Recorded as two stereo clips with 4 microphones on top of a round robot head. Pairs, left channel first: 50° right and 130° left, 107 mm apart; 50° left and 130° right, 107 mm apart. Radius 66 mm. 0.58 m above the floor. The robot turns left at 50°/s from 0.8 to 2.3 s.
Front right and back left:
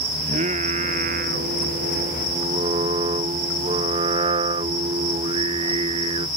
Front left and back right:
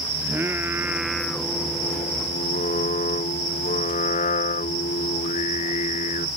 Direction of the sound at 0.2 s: 160° left.